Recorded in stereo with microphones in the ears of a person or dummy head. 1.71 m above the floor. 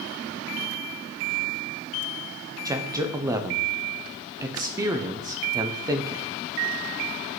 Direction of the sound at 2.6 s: 10° right (ahead or behind).